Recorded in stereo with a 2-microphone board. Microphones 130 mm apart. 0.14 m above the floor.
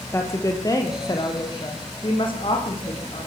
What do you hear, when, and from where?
0.1 s a woman speaking: 20° left (ahead or behind), 3.5 m; by 3.3 s 45° left (ahead or behind), 7.5 m